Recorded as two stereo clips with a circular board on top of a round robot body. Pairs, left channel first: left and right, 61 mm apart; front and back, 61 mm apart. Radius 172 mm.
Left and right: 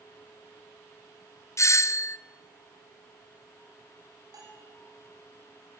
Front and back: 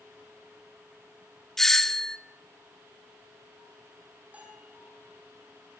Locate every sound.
1.6 s a doorbell: 80° left, 1.3 m
4.3 s a bell: 110° right, 5.5 m